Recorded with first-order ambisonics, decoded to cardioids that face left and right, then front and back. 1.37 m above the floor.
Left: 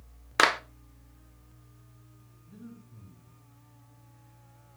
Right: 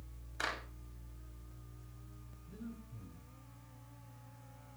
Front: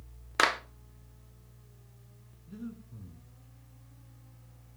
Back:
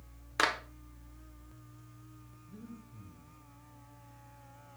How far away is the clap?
About 1.0 m.